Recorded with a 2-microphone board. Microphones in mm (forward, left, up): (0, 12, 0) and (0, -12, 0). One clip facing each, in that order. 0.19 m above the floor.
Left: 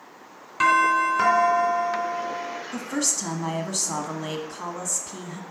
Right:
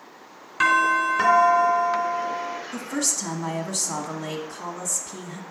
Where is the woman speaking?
20° left (ahead or behind), 1.1 m.